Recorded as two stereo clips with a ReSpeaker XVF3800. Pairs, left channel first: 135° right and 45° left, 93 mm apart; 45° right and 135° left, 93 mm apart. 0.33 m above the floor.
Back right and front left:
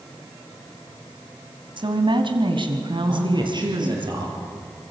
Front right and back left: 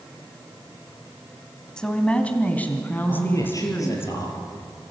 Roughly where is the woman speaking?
Ahead left.